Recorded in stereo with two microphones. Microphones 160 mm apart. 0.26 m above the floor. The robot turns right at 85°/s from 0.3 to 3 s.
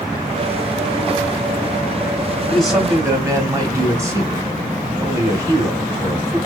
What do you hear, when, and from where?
2.5 s a man speaking: 165° left, 1.3 m; by 6.4 s 150° right, 1.3 m